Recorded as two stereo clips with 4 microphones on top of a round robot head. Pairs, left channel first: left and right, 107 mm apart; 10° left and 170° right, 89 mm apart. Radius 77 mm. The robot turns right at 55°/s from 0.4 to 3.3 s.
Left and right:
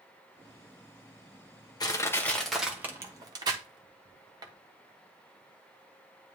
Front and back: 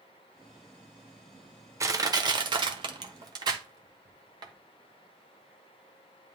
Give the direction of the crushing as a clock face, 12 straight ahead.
7 o'clock.